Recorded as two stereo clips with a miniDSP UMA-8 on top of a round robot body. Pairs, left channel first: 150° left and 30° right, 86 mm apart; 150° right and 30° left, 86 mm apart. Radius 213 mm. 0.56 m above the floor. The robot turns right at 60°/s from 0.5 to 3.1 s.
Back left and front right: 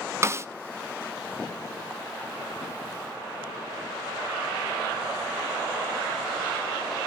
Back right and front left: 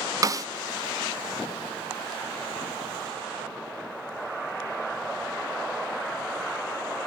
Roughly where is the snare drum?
Ahead.